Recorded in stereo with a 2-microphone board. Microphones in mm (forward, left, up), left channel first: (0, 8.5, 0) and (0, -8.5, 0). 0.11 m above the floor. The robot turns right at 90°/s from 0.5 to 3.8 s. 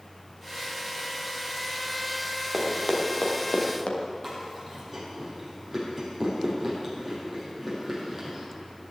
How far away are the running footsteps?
About 3.5 m.